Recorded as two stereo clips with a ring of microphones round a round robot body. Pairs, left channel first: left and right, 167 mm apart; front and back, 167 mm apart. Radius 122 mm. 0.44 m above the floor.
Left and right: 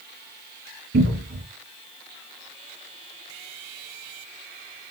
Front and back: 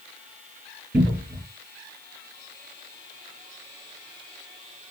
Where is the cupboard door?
110° right, 3 m.